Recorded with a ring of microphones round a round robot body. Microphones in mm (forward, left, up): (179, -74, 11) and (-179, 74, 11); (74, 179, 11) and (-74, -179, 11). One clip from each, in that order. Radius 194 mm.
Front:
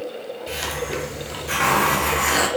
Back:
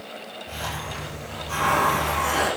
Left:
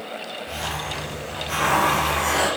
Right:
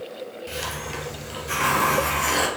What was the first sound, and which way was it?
A hiss, 40° right.